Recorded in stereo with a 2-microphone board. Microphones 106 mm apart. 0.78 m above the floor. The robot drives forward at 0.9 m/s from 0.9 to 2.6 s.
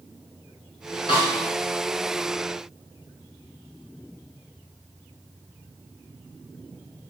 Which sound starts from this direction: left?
A snare drum, at 1.1 s.